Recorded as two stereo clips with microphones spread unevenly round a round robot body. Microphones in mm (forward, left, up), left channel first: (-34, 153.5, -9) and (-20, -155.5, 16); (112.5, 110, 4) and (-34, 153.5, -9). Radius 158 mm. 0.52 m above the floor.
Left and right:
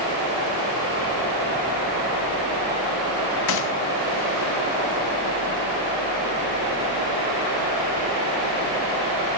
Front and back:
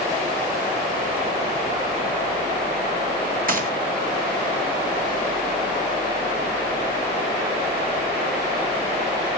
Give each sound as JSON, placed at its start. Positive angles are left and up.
{"t": 3.5, "sound": "a gunshot", "azimuth_deg": 140, "distance_m": 3.0}